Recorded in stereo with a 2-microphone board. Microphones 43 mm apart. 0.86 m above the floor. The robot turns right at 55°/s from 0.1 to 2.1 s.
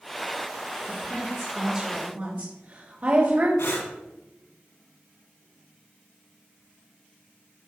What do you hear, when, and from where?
0.9 s a woman speaking: 20° left (ahead or behind), 3 m; by 3.5 s 45° right (ahead or behind), 3 m
3.6 s breathing: 85° left, 3.5 m